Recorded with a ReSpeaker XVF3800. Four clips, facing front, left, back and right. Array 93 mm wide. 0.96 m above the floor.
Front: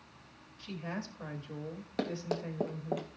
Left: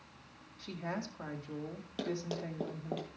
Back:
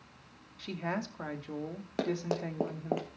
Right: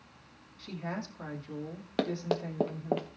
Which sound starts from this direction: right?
Running footsteps, at 2.0 s.